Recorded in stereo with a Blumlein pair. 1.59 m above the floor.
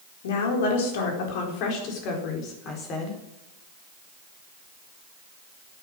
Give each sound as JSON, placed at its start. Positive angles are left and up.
{"t": 0.2, "sound": "a woman speaking", "azimuth_deg": 55, "distance_m": 4.0}